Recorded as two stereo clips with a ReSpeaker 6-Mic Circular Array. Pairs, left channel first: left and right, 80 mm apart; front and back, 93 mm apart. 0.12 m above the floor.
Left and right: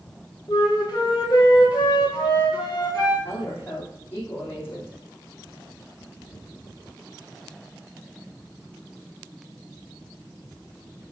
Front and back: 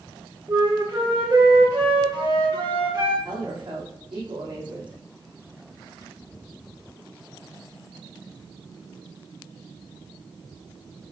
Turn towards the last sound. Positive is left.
turn(degrees=150)